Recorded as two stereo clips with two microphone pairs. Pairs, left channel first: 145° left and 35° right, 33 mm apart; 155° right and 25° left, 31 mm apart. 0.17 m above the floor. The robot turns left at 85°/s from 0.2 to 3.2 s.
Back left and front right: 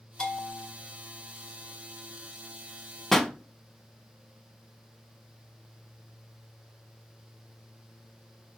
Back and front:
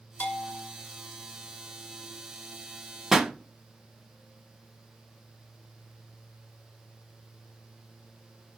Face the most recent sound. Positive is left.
turn(degrees=80)